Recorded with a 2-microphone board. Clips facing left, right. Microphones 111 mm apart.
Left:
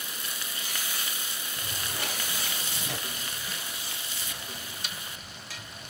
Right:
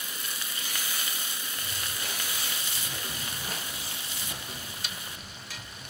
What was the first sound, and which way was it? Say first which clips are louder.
Footsteps: left 4 dB; 70° left (ahead or behind).